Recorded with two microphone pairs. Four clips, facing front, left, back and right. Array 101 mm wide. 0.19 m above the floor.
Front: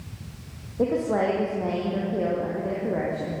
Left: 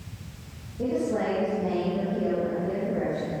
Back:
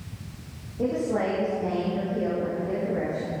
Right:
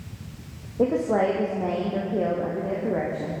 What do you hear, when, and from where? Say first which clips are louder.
0.8 s a woman speaking: right 5 dB, front 2 dB; 65° right, 6.5 m; by 3.4 s 60° right, 8 m